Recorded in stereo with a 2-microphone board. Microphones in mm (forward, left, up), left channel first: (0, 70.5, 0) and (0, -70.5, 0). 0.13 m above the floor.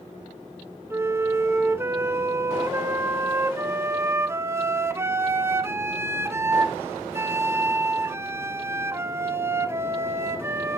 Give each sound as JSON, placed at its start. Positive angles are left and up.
{"t": 0.9, "sound": "a flute", "side_deg": -20, "distance_m": 0.7}